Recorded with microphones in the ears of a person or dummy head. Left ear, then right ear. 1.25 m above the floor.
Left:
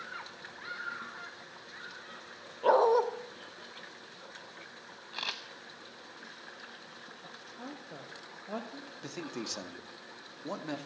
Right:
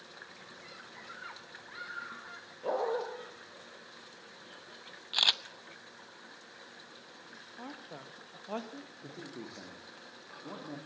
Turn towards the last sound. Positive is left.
turn(degrees=80)